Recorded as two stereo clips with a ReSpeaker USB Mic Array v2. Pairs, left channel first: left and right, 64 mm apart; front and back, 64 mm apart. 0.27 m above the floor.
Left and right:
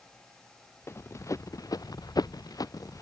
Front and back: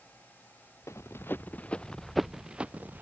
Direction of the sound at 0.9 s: 40° left.